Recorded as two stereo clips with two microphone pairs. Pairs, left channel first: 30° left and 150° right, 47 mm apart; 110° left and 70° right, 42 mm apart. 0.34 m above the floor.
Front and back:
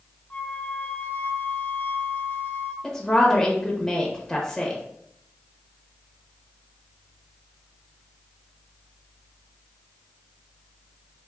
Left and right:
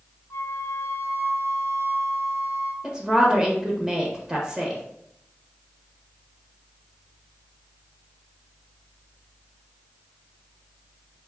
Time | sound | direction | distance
0.3 | a flute | 90° left | 0.5 m
2.8 | a woman speaking | 35° right | 0.9 m